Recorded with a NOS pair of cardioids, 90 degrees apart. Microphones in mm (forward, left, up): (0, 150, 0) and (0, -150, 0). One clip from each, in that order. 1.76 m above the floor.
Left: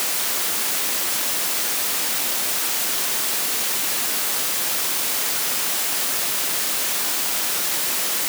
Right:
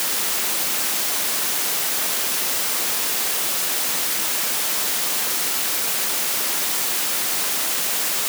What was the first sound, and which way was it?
Only background noise.